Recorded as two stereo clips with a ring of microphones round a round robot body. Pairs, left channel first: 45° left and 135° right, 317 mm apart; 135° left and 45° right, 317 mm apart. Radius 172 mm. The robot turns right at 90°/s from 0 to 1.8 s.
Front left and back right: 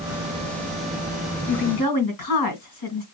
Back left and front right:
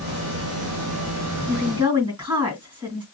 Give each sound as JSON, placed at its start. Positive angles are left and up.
{"t": 1.5, "sound": "a woman speaking", "azimuth_deg": 0, "distance_m": 3.0}